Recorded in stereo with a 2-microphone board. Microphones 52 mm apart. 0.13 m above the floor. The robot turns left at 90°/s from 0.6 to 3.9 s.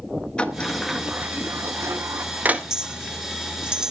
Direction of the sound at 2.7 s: 10° right (ahead or behind).